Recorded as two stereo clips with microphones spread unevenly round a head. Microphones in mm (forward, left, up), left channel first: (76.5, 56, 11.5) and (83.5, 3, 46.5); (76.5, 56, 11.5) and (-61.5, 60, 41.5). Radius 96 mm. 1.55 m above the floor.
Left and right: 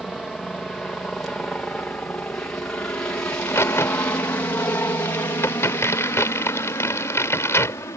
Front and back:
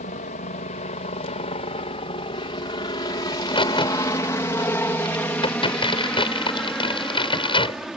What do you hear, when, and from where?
0.0 s a helicopter: 15° left; by 8.0 s 90° left
3.3 s a crack: 55° left